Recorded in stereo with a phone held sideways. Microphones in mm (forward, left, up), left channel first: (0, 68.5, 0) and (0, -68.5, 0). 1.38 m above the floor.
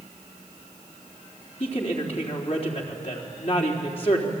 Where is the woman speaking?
50° left (ahead or behind), 4 m.